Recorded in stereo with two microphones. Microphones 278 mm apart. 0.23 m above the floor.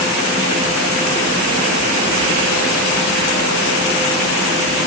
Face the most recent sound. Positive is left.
No sound to turn to.